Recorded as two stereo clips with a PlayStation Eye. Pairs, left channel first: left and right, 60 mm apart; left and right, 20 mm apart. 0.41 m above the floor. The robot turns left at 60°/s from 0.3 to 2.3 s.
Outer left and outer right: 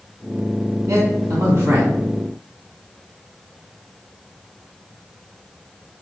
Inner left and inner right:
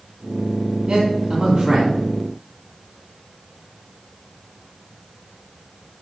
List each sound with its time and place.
0.9 s a man speaking: 70° right (ahead or behind), 3 m; by 2.0 s 30° right (ahead or behind), 3 m